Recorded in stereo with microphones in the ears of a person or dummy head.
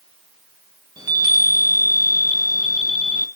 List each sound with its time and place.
1.0 s a chime: 25° right (ahead or behind), 1.1 m